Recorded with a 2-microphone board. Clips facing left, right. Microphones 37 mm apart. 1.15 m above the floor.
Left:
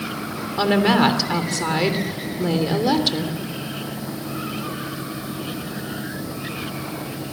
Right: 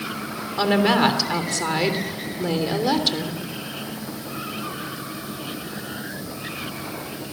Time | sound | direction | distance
0.6 | a woman speaking | centre (ahead or behind) | 3 m